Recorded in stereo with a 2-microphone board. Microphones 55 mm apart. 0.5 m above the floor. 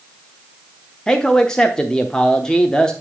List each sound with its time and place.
1.1 s a man speaking: 15° left (ahead or behind), 0.7 m